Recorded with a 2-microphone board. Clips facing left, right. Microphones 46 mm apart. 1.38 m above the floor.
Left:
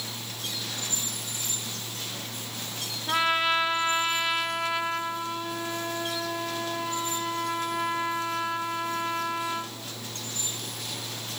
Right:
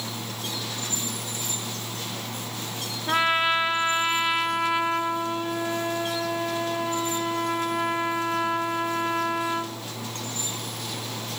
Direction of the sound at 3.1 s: 20° right (ahead or behind).